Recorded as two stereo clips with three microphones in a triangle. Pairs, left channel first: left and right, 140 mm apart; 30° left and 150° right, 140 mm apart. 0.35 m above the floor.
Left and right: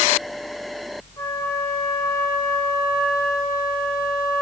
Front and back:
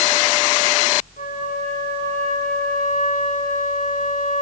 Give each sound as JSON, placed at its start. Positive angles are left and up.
{"t": 1.2, "sound": "a flute", "azimuth_deg": 20, "distance_m": 3.5}